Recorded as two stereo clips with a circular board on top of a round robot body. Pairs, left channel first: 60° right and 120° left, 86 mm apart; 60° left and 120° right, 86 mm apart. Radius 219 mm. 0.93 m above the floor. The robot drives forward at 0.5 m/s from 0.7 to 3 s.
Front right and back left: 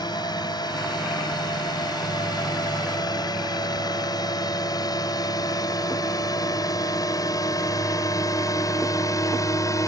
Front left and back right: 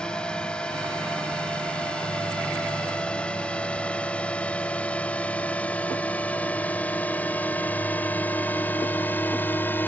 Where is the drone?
20° right; by 9.9 s 10° right.